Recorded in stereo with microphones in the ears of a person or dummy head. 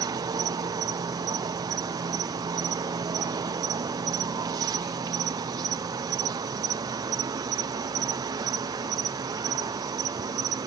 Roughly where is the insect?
Centre.